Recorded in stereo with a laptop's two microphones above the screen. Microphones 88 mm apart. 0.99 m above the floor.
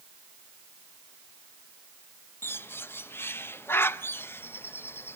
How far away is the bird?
About 1.0 m.